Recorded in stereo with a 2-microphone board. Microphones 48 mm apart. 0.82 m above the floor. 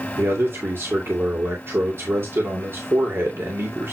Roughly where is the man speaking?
Right.